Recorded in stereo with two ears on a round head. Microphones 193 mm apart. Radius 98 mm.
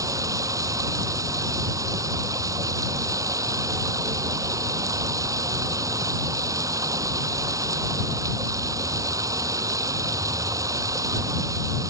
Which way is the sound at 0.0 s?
15° right (ahead or behind).